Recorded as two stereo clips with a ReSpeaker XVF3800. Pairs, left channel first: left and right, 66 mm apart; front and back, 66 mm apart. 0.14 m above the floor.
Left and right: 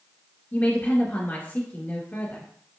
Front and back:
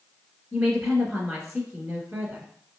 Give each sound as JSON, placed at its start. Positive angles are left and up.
{"t": 0.5, "sound": "a woman speaking", "azimuth_deg": 120, "distance_m": 1.5}